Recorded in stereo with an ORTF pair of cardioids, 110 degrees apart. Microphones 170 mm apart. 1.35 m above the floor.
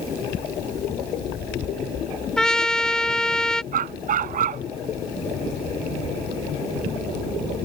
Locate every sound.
2.4 s a trumpet: 5° left
3.7 s a dog barking: 55° right